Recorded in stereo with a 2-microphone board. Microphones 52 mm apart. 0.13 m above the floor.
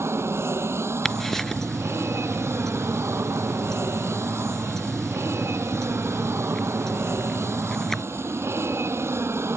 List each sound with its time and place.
0.0 s an aircraft: 60° right (ahead or behind)
1.1 s ticking: 10° left (ahead or behind)